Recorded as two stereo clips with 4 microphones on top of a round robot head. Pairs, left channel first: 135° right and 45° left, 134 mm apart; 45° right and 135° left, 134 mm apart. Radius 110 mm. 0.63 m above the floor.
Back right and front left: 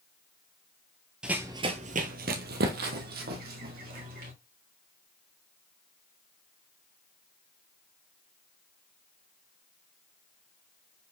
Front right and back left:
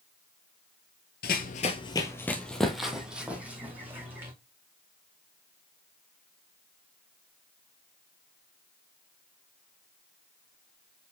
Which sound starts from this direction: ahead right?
Running footsteps, at 1.2 s.